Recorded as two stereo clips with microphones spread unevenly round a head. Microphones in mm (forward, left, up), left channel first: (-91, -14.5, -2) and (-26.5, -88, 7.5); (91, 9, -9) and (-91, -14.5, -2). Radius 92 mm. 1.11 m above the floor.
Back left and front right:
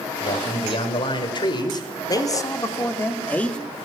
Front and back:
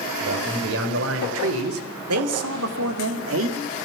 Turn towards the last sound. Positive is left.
turn(degrees=-145)